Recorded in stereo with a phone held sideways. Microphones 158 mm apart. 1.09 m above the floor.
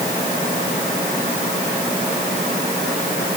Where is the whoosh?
I don't hear a whoosh.